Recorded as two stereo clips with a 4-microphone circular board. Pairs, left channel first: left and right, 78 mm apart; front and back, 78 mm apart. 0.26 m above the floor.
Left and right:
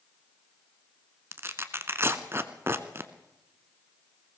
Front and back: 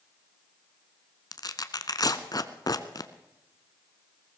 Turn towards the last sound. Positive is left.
turn(degrees=-30)